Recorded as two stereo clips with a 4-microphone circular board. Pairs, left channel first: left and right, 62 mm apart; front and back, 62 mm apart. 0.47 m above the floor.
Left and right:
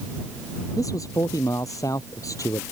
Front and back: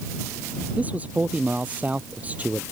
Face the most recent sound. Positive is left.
turn(degrees=115)